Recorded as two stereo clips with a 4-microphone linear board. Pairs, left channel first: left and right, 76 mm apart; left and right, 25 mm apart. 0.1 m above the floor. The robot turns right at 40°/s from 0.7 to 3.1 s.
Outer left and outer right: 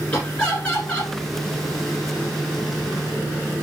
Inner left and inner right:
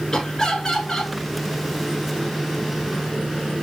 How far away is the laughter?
About 1.5 m.